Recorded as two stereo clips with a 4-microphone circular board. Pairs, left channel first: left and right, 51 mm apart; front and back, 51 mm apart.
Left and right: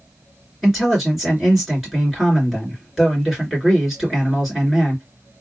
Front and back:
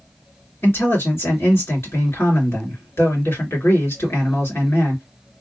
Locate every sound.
0.6 s a man speaking: 5° right, 2.5 m